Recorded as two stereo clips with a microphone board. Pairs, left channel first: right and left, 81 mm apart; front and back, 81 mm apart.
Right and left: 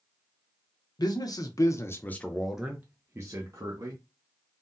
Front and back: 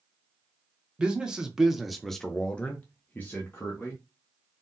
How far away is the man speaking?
About 0.9 m.